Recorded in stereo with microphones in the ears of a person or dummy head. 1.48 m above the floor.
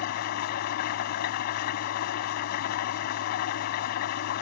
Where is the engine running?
60° left (ahead or behind).